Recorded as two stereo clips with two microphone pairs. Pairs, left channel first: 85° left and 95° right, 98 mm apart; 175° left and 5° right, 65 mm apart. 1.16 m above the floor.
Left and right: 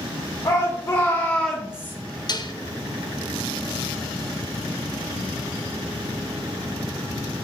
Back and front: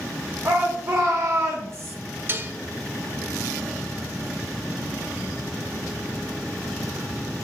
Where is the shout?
40° left, 1.4 m; by 1.9 s 35° right, 0.8 m.